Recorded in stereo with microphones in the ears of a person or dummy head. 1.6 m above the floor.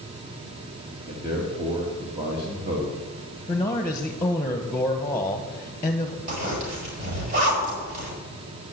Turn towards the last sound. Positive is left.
turn(degrees=-45)  # may be behind; listen again after turning